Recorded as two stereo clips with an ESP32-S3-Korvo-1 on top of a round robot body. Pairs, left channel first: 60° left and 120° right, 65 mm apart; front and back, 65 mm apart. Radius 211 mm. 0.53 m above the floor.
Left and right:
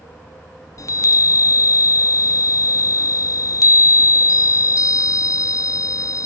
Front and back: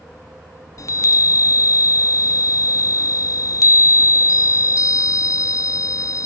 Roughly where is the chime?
Ahead left.